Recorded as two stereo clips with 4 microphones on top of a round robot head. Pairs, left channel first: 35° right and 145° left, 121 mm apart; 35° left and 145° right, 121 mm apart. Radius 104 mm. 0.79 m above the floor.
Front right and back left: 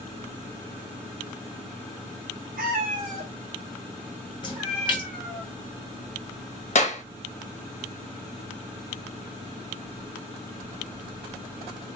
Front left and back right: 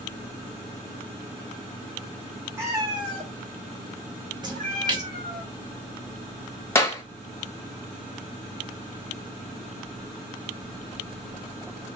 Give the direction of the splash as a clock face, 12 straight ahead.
3 o'clock.